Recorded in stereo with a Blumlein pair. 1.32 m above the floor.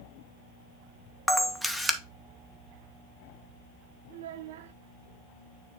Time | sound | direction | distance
1.3 | a camera shutter | straight ahead | 0.7 m
4.1 | a child speaking | 60° right | 0.5 m